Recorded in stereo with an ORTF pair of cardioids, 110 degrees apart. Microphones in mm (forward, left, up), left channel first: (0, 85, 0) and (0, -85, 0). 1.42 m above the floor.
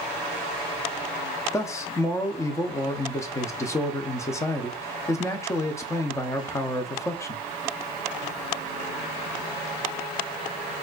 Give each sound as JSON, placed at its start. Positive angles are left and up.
{"t": 1.5, "sound": "a man speaking", "azimuth_deg": 15, "distance_m": 0.7}